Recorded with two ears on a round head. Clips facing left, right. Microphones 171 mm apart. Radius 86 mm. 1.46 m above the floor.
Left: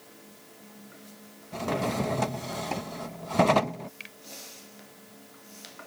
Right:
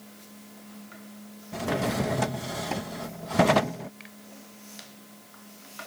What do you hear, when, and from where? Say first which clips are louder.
1.5 s a drawer: right 1 dB; 5° right (ahead or behind)
4.0 s a finger snap: right 3 dB; 35° left (ahead or behind)